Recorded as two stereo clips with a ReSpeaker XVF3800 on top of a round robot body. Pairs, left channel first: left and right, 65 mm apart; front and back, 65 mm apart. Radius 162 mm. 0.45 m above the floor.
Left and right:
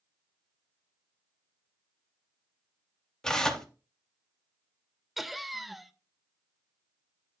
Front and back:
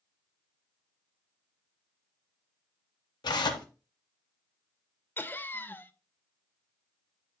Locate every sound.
3.2 s tearing paper: 10° left, 0.7 m
5.2 s laughter: 5° right, 0.8 m